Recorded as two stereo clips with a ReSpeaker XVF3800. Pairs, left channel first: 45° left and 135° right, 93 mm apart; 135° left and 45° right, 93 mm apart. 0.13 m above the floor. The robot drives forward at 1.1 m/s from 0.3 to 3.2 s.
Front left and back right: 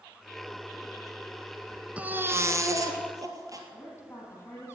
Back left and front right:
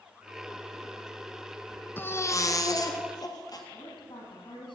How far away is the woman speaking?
About 4 m.